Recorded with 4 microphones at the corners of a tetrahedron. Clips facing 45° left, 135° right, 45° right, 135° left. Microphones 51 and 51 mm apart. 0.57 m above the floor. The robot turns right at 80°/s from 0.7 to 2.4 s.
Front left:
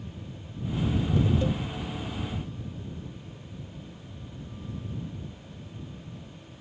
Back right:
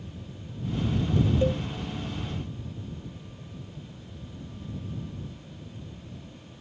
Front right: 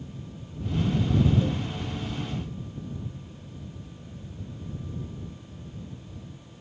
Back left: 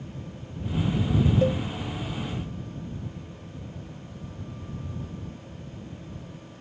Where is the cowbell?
160° left; by 1.6 s straight behind.